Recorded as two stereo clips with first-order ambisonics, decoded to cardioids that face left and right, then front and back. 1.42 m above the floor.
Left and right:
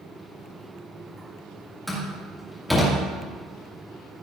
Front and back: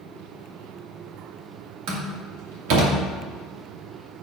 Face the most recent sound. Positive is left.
turn(degrees=175)